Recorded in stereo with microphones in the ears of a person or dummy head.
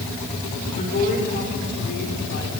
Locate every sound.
0.8 s a woman speaking: 40° left (ahead or behind), 4.5 m; by 2.5 s 70° left (ahead or behind), 3.5 m